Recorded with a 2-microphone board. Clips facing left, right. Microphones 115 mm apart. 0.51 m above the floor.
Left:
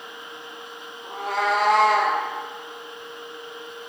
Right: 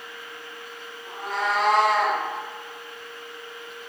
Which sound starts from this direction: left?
A cat meowing, at 1.0 s.